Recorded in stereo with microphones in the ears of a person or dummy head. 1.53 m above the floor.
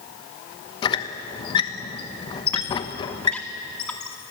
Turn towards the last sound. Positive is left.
turn(degrees=10)  # may be behind; listen again after turning